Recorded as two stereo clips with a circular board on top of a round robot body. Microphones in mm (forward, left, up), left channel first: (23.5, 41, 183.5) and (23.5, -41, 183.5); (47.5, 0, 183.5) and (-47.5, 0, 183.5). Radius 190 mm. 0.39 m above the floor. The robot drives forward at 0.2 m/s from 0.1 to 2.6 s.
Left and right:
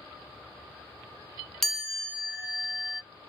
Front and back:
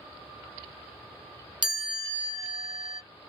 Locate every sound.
1.6 s a chime: 175° left, 1.7 m